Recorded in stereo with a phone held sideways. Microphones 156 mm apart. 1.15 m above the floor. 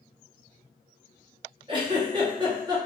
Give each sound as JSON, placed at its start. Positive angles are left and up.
{"t": 1.7, "sound": "a giggle", "side_deg": -30, "distance_m": 0.9}